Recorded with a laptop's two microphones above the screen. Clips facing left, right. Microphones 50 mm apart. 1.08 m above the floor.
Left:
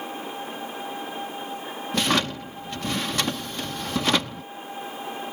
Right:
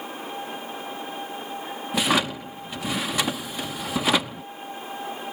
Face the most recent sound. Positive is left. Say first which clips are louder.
# right 1 dB
turn(degrees=-10)  # may be behind; listen again after turning